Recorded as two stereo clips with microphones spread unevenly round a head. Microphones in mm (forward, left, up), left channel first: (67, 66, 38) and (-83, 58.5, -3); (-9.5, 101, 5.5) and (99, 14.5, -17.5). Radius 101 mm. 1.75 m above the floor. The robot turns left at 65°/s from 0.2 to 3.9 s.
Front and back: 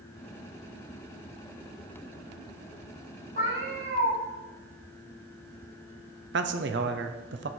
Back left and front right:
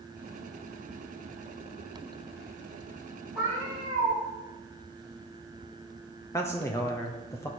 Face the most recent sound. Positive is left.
turn(degrees=-145)